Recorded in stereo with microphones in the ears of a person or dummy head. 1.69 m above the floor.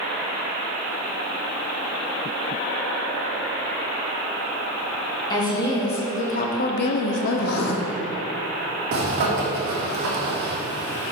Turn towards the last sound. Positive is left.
turn(degrees=-55)  # may be behind; listen again after turning